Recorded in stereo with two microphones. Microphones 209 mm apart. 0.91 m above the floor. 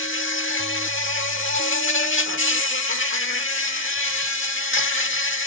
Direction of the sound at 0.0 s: 70° left (ahead or behind).